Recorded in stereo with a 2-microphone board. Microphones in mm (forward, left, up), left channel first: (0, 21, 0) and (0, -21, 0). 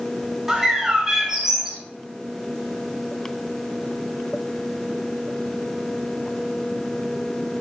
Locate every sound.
0.5 s a bird: 10° right (ahead or behind), 0.6 m